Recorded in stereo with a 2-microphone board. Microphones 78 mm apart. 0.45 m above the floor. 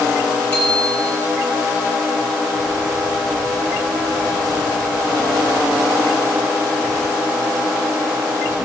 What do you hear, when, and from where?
0.5 s a bicycle bell: 25° left (ahead or behind), 6.5 m